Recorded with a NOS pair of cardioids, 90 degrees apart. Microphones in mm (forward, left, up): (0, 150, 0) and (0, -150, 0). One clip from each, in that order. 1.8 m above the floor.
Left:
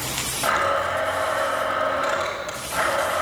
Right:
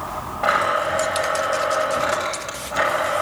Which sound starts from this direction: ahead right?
A blender, at 0.4 s.